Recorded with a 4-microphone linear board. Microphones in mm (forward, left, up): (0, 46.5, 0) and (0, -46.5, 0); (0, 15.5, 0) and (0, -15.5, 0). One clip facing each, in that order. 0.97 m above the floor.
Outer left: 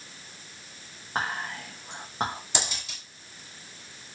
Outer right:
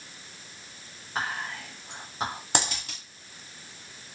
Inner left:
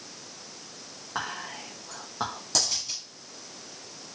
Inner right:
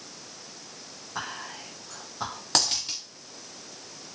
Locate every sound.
1.1 s whispering: 40° left (ahead or behind), 0.9 m
2.5 s a dropped coin: 60° right (ahead or behind), 1.6 m